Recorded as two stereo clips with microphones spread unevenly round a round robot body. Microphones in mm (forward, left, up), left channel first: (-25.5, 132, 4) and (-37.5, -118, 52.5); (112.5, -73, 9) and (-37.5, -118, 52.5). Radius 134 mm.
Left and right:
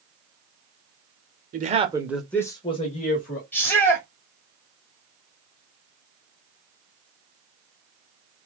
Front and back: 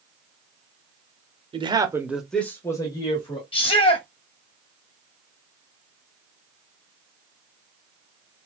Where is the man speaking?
115° right, 0.9 m; by 3.4 s 50° left, 1.5 m.